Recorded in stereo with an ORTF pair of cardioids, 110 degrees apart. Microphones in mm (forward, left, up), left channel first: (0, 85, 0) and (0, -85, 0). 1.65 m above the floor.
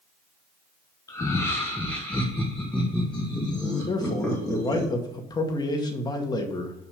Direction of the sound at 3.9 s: 25° left.